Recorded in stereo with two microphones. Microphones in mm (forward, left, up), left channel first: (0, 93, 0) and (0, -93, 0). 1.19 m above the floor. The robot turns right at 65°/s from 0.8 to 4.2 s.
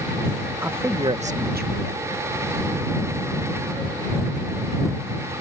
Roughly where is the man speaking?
Behind.